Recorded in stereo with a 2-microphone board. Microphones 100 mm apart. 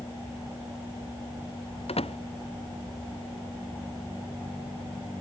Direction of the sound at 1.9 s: 85° left.